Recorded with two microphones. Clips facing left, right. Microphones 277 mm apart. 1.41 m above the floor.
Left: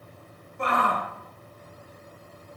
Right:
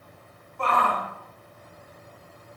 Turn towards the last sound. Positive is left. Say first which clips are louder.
# even
turn(degrees=20)  # may be behind; listen again after turning